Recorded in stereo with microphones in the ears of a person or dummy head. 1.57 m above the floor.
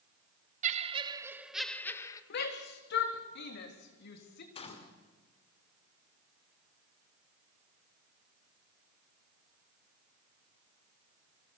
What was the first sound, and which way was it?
Laughter, 35° right (ahead or behind).